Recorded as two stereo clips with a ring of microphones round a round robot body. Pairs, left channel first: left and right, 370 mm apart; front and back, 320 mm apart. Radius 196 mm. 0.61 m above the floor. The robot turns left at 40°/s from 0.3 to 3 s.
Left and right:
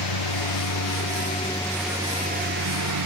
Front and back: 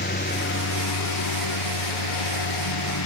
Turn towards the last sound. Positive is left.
turn(degrees=-50)